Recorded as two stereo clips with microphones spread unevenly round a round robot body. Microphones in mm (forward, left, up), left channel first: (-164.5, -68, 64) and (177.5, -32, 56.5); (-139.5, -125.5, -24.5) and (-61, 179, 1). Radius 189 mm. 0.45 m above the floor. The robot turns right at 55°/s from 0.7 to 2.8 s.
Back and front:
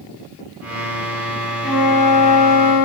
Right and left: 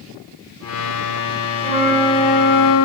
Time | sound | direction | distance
1.6 | a flute | 155° left | 0.8 m